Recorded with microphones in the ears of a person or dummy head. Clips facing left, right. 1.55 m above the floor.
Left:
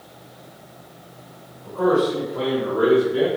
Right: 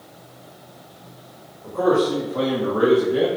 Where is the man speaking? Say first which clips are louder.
Even; 60° right (ahead or behind), 3.5 m; by 3.3 s 80° right, 3.5 m.